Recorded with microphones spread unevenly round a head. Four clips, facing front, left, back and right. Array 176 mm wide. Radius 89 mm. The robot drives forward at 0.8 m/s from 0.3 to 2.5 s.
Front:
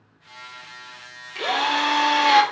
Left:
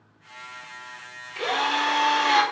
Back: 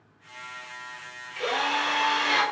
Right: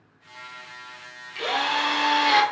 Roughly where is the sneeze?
I don't hear a sneeze.